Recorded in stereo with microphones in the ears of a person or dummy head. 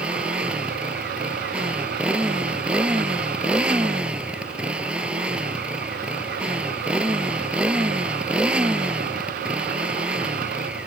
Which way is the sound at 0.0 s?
10° right (ahead or behind).